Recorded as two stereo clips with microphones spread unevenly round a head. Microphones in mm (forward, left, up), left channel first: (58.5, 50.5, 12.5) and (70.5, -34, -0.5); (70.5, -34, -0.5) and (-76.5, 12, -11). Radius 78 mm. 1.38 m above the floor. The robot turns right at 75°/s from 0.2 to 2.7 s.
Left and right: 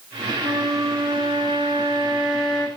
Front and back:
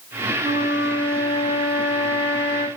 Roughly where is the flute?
Behind right.